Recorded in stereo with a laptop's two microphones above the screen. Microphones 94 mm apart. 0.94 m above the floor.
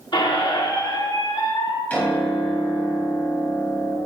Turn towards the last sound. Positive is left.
turn(degrees=15)  # may be behind; listen again after turning